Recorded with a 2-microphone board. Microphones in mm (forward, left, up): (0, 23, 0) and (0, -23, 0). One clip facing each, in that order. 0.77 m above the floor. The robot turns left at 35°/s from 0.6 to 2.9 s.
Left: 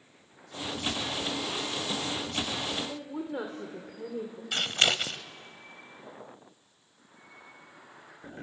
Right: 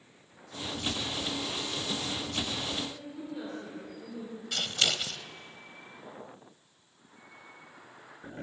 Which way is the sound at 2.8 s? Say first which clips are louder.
Left 3 dB; 70° left (ahead or behind).